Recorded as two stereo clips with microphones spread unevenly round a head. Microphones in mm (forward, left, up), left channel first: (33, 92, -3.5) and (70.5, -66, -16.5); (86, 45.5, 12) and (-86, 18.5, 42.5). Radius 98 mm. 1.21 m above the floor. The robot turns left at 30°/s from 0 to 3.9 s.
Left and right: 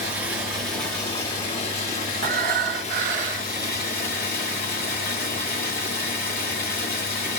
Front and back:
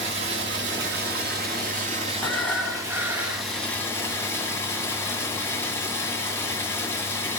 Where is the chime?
I don't hear a chime.